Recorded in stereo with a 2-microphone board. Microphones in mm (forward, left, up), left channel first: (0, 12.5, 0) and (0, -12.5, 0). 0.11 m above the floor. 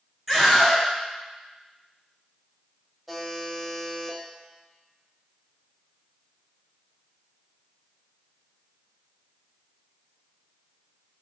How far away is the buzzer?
About 0.7 m.